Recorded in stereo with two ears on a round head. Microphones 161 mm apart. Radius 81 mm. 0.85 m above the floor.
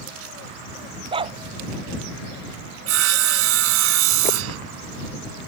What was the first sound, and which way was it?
A dog barking, 30° right (ahead or behind).